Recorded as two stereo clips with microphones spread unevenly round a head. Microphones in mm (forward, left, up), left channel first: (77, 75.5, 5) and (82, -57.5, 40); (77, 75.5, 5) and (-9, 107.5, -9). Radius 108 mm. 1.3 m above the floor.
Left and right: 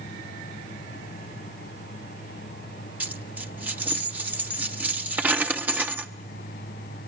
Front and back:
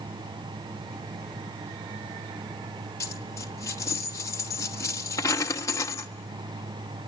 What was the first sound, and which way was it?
A dropped coin, 40° right.